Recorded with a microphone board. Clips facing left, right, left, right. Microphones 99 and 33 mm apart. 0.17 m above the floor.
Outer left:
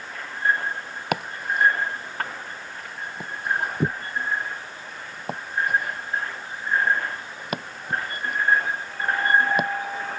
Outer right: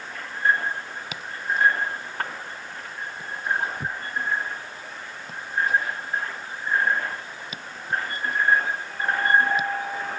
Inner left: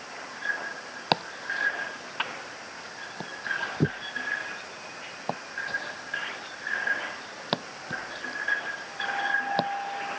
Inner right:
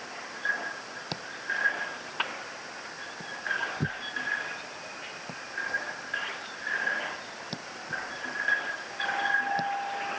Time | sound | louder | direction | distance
1.1 | chopping | outer left 3 dB, inner left 5 dB | 60° left (ahead or behind) | ?